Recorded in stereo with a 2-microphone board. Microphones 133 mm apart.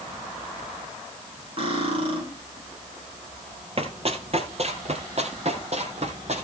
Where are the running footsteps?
45° right (ahead or behind), 2.5 m; by 6.4 s 50° right (ahead or behind), 4 m.